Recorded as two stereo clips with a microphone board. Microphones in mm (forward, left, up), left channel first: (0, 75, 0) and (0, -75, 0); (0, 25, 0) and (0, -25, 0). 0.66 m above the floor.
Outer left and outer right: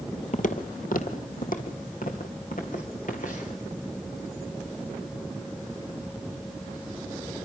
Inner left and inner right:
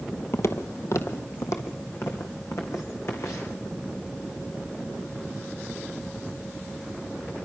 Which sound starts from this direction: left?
Footsteps, at 0.3 s.